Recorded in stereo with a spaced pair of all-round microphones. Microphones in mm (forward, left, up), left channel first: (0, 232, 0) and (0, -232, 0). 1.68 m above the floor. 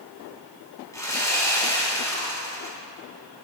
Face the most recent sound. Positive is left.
turn(degrees=5)  # may be behind; listen again after turning